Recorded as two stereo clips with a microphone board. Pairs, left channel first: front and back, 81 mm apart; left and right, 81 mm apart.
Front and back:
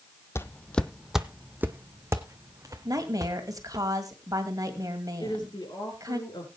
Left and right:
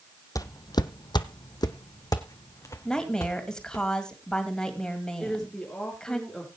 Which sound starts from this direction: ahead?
A woman speaking, at 5.2 s.